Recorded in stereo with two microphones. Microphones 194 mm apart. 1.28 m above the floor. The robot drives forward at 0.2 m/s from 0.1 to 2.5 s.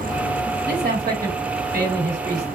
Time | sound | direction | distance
0.7 | a man speaking | 55° right (ahead or behind) | 3.5 m